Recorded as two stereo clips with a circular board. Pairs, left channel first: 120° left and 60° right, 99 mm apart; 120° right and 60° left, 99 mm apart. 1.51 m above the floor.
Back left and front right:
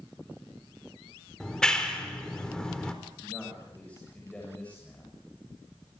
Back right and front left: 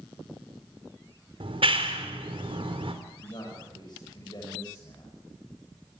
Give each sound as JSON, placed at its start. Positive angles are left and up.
{"t": 1.4, "sound": "a clap", "azimuth_deg": 40, "distance_m": 3.5}
{"t": 3.2, "sound": "a man speaking", "azimuth_deg": -160, "distance_m": 7.5}